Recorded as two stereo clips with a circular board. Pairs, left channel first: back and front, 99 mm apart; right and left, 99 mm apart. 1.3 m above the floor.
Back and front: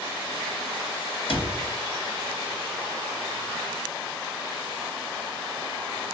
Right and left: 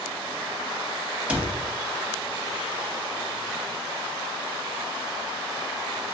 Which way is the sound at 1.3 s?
165° left.